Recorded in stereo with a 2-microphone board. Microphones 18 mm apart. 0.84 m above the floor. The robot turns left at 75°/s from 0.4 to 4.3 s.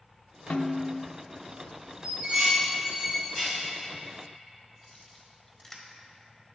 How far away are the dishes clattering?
About 3.5 m.